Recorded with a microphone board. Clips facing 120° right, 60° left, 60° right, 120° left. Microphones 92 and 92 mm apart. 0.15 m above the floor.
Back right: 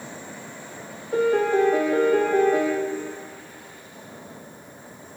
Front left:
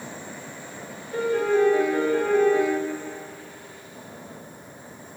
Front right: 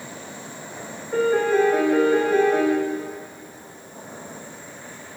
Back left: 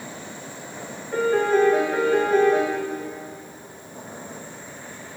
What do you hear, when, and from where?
1.1 s a piano: 140° right, 1.5 m